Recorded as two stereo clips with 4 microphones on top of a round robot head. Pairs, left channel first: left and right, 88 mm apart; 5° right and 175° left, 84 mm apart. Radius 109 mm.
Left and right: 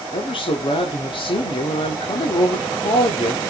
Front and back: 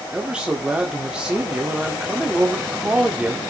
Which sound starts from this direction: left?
A man speaking, at 0.1 s.